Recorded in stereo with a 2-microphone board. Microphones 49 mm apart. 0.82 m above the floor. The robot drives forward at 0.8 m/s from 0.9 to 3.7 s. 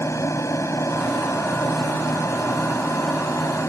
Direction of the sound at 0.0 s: 75° left (ahead or behind).